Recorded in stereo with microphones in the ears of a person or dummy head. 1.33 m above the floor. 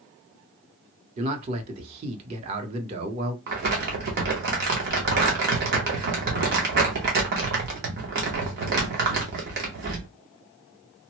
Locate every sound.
1.2 s a man speaking: 30° right (ahead or behind), 0.8 m
3.5 s crumpling: 55° right (ahead or behind), 1.0 m